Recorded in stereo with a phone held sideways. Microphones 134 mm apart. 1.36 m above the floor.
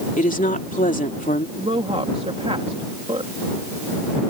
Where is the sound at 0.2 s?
70° left (ahead or behind).